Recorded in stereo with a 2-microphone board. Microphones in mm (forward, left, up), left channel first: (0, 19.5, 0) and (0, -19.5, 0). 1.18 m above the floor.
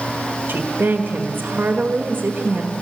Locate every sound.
0.5 s a woman speaking: 55° right (ahead or behind), 1.6 m